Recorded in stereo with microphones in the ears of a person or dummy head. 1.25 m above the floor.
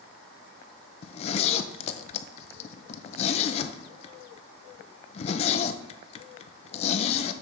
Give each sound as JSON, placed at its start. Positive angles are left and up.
{"t": 1.0, "sound": "a zipper", "side_deg": 35, "distance_m": 0.5}